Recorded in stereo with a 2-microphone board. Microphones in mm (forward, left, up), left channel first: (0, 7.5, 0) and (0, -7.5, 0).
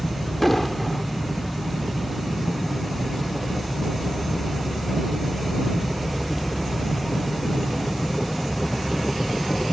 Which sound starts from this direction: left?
An explosion, at 0.4 s.